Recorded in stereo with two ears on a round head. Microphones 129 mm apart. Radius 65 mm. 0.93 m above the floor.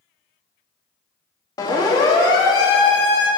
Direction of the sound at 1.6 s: 25° left (ahead or behind).